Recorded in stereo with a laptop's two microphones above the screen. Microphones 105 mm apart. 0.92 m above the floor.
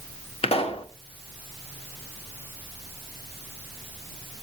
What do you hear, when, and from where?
0.4 s a pop: 70° left (ahead or behind), 1.3 m